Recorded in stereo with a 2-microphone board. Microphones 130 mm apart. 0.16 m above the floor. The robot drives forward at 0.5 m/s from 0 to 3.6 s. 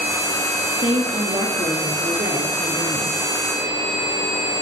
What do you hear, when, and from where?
0.8 s a woman speaking: 70° right (ahead or behind), 4.5 m